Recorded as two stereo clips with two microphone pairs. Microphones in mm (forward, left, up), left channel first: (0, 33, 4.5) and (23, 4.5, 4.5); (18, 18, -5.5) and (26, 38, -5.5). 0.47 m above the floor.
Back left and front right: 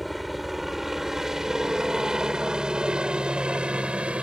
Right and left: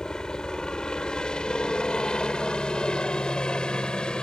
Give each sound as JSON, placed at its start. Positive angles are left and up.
{"t": 0.0, "sound": "a helicopter", "azimuth_deg": -140}